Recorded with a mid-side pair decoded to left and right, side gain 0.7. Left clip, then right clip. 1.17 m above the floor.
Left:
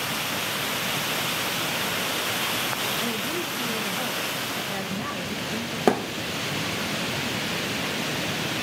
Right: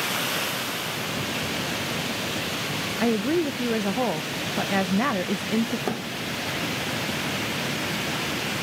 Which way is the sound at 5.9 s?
40° left.